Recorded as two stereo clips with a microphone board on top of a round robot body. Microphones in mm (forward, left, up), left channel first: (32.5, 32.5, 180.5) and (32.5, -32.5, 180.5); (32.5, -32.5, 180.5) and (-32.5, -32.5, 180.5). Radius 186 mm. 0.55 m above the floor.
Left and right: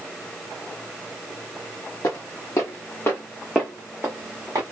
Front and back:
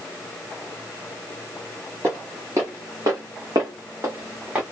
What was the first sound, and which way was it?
Footsteps, 130° left.